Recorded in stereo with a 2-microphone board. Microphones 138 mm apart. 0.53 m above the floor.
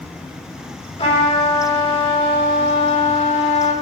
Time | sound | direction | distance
1.0 | a trumpet | 50° left (ahead or behind) | 3 m